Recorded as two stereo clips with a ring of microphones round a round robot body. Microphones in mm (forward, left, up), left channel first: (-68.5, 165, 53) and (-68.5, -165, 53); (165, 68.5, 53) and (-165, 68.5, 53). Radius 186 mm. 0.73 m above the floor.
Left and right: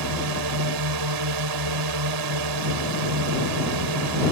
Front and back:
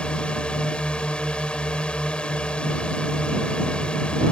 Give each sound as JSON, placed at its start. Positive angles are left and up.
{"t": 0.0, "sound": "a drone", "azimuth_deg": -85}